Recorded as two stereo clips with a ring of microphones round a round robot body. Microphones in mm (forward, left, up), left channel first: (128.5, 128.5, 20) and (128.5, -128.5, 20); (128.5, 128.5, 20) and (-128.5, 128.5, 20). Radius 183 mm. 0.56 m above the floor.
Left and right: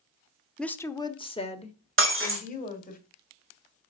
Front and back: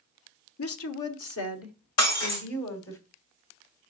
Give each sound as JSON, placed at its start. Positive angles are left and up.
{"t": 0.6, "sound": "a woman speaking", "azimuth_deg": 5, "distance_m": 1.1}
{"t": 2.0, "sound": "breaking glass", "azimuth_deg": -50, "distance_m": 4.0}